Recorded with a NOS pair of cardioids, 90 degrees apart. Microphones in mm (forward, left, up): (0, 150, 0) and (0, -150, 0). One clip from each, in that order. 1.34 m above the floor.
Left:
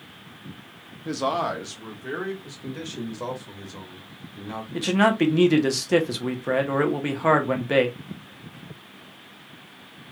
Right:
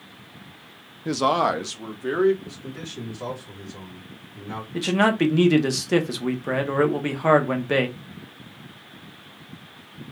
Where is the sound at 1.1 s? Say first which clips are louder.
Right 4 dB; 20° right, 0.5 m; by 2.3 s 40° right, 1.5 m.